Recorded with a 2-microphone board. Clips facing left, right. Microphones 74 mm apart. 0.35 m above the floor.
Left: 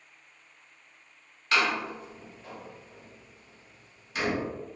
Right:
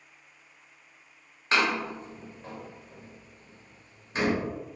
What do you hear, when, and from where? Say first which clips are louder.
1.5 s a door slam: right 1 dB; 35° right (ahead or behind), 0.8 m